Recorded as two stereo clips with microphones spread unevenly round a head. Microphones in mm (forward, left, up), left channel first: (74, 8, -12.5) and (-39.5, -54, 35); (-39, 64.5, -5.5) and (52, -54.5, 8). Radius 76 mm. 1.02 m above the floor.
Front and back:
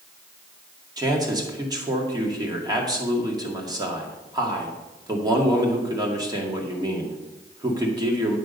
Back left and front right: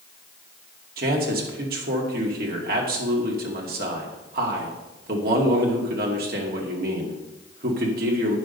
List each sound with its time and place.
1.0 s a man speaking: 85° right, 2 m